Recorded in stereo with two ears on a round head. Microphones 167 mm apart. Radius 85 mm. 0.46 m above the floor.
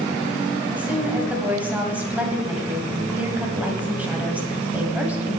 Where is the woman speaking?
10° right (ahead or behind), 2 m.